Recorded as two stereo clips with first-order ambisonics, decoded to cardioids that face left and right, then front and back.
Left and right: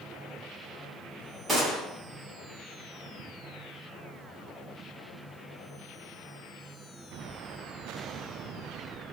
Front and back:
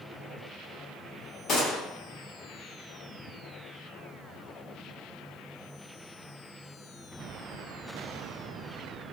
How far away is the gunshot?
About 1.3 m.